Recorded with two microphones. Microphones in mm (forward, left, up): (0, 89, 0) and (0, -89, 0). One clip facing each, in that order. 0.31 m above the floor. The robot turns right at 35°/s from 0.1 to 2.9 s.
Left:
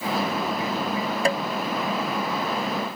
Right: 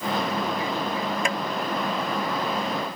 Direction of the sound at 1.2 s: 35° left (ahead or behind).